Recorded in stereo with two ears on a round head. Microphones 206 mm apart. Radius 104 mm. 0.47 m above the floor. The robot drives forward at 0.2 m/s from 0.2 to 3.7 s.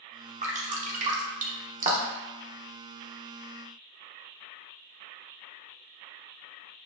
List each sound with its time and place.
0.4 s dripping: 30° right (ahead or behind), 0.6 m